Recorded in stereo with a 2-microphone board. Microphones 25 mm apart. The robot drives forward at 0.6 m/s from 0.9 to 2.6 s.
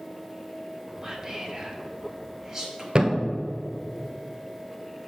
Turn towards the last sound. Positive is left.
turn(degrees=-40)  # may be behind; listen again after turning